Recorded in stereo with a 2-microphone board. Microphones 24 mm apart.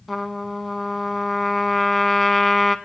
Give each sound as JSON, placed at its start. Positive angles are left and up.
{"t": 0.1, "sound": "a trumpet", "side_deg": 5, "distance_m": 0.6}